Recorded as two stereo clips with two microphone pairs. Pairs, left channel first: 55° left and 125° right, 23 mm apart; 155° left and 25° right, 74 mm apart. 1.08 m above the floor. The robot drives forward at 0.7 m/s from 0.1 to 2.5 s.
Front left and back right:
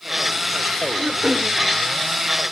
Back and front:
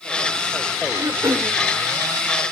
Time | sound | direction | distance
0.9 | throat clearing | 60° right | 1.7 m